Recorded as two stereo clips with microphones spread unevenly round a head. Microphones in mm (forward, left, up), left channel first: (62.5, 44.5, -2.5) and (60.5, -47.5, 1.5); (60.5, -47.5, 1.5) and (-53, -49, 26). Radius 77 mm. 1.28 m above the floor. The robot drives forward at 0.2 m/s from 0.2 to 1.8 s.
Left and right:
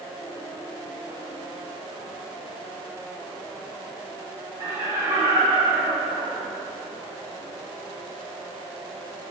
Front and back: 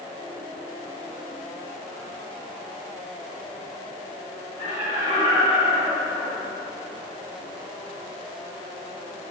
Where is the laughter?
175° right, 1.0 m.